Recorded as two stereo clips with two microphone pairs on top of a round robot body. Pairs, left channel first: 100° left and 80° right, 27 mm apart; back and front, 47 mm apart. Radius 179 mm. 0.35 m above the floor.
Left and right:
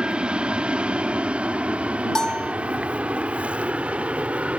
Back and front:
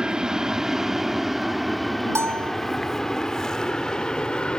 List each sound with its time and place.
0.0 s an aircraft: 65° right; by 4.6 s 120° right
2.1 s a bell: 25° left